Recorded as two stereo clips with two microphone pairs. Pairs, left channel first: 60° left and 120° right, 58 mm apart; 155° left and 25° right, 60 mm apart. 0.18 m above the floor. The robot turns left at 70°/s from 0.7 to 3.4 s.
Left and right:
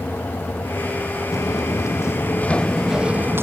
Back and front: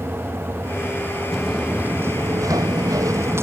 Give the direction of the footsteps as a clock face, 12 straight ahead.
10 o'clock.